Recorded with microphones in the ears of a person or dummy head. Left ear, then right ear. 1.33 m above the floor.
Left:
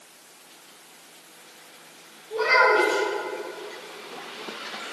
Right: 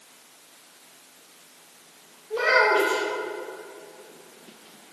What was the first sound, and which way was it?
A child speaking, 60° right (ahead or behind).